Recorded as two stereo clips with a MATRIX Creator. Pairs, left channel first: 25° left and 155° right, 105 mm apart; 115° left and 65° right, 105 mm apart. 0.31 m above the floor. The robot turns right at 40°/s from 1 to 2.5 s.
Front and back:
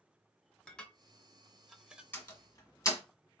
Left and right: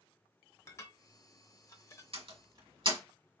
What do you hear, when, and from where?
0.7 s dishes clattering: 95° left, 0.6 m; by 2.0 s 135° left, 0.6 m
2.1 s a door slam: 50° right, 1.8 m; by 3.0 s 35° right, 1.8 m